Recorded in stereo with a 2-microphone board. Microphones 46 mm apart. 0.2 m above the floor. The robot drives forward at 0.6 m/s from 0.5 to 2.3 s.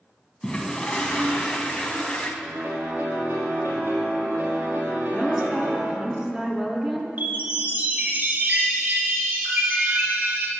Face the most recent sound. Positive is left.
turn(degrees=-40)  # may be behind; listen again after turning